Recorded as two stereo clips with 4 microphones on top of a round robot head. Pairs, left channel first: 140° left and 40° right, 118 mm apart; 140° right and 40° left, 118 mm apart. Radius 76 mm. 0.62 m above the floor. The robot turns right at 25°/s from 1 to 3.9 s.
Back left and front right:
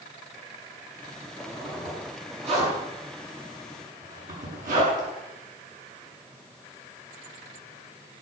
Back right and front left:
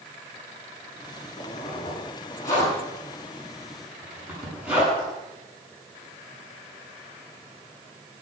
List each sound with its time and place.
1.4 s a zipper: 105° right, 8 m; by 5.1 s 40° right, 8 m